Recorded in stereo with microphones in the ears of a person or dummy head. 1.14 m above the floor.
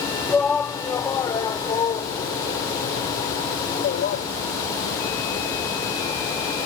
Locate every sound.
0.3 s a shout: 10° left (ahead or behind); by 4.2 s 45° left (ahead or behind)